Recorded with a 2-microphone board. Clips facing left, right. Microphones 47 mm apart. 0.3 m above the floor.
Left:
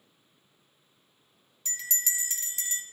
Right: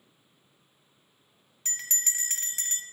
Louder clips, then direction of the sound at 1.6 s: Even; 45° right (ahead or behind).